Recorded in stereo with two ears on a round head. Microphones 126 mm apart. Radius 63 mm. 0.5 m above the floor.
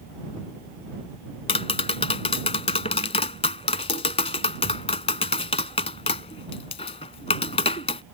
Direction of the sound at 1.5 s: 45° left (ahead or behind).